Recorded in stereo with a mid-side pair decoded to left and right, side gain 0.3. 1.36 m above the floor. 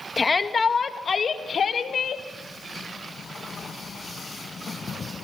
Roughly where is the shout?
Ahead left.